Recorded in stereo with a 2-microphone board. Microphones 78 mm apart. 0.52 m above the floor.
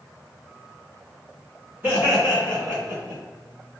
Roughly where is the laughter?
Right.